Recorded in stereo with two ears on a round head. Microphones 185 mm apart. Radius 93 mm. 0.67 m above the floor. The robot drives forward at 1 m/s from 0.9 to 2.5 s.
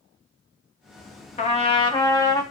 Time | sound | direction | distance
1.4 | a trumpet | 35° left (ahead or behind) | 1.0 m